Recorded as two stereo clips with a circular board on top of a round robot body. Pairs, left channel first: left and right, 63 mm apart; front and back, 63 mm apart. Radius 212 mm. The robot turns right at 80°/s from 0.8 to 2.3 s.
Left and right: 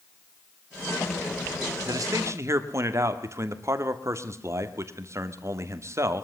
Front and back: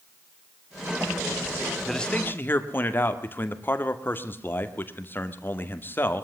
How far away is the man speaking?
About 2.5 m.